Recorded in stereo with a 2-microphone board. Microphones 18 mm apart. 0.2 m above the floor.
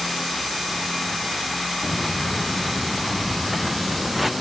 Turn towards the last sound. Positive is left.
turn(degrees=-10)  # may be behind; listen again after turning